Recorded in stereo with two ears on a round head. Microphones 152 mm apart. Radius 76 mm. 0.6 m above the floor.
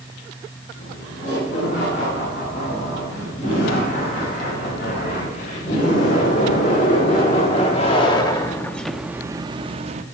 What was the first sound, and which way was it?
Laughter, 50° left (ahead or behind).